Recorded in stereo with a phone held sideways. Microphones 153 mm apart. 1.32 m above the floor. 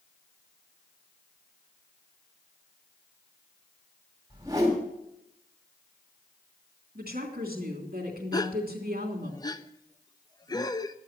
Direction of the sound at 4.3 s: 20° right (ahead or behind).